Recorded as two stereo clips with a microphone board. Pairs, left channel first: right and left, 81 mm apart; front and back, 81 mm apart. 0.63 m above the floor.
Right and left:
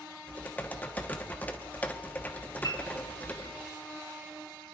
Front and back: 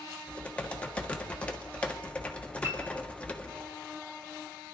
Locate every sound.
0.3 s typing on a keyboard: 50° right, 1.1 m
2.6 s a piano: 125° right, 2.5 m